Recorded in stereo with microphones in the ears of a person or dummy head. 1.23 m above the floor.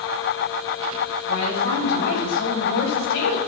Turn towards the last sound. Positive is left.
turn(degrees=70)  # may be behind; listen again after turning